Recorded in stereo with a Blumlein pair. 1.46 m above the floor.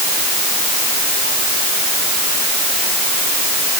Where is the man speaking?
I don't hear a man speaking.